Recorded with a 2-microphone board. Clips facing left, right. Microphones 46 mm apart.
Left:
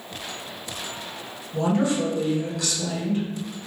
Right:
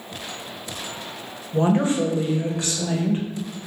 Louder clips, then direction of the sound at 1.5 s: Right 3 dB; 35° right (ahead or behind).